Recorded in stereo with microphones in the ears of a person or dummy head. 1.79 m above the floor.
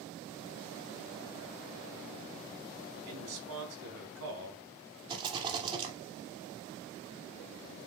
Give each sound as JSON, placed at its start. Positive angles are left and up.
{"t": 3.1, "sound": "a man speaking", "side_deg": -85, "distance_m": 5.0}
{"t": 5.1, "sound": "a rattle", "side_deg": -30, "distance_m": 2.5}